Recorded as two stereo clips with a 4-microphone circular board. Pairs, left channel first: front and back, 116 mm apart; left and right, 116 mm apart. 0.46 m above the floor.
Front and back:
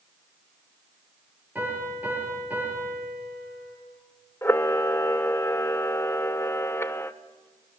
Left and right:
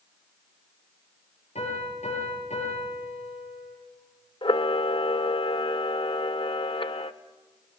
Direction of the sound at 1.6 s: 105° left.